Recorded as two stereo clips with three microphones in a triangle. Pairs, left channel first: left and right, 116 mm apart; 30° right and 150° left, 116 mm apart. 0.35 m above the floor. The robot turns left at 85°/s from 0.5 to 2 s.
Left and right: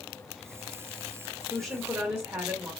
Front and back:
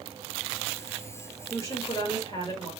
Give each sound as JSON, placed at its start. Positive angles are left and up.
{"t": 1.5, "sound": "a woman speaking", "azimuth_deg": 15, "distance_m": 1.4}